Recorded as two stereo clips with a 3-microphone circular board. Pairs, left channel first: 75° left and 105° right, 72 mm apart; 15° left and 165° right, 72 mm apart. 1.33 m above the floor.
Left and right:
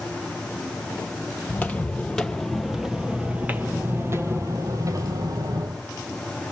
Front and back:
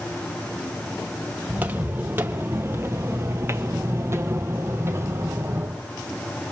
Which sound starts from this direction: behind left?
Footsteps, at 1.5 s.